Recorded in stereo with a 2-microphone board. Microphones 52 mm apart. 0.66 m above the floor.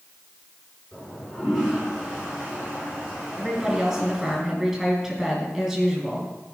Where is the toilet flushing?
10° left (ahead or behind), 5.5 m.